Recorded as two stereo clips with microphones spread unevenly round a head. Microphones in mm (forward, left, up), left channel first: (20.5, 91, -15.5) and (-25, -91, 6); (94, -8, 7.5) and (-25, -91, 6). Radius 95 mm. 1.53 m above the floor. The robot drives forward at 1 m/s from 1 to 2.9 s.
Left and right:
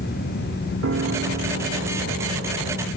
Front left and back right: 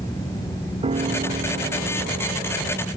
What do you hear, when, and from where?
0.8 s a piano: 100° right; by 2.9 s 135° right